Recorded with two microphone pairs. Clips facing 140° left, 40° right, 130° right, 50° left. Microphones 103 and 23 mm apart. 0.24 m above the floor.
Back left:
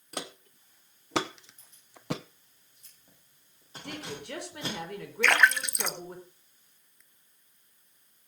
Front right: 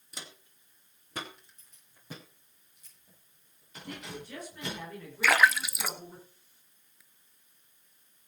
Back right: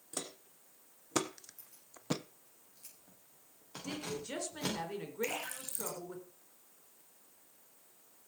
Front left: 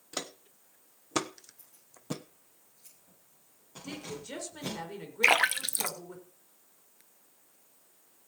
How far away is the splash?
About 0.6 m.